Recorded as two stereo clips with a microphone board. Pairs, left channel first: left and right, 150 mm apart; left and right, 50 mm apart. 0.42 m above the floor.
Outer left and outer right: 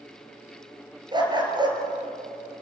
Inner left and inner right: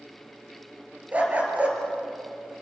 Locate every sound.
1.1 s a dog barking: 30° right (ahead or behind), 3.5 m